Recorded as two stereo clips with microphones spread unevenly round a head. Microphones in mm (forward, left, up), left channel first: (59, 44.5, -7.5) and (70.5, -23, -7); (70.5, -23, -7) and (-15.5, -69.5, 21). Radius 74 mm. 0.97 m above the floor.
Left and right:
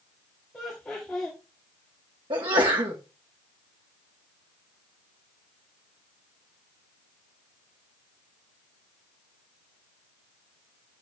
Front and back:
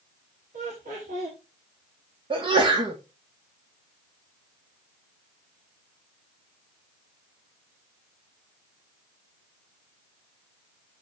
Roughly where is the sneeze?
Behind right.